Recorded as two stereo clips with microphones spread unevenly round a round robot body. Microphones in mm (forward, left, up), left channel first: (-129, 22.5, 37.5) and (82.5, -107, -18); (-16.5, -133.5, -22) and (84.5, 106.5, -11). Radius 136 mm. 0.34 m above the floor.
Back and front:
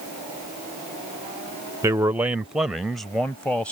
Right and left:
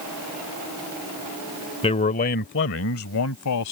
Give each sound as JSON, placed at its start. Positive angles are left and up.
{"t": 1.8, "sound": "a man speaking", "azimuth_deg": -70}